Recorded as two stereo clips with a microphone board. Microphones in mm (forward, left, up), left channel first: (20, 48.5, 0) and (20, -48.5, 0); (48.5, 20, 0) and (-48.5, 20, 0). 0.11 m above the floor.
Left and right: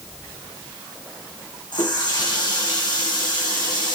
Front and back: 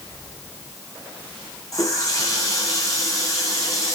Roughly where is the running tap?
Ahead left.